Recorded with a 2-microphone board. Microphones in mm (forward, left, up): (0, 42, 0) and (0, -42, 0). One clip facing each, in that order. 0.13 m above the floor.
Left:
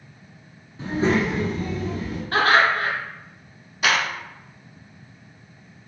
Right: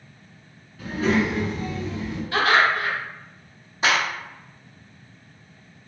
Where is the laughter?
45° left (ahead or behind), 1.4 m.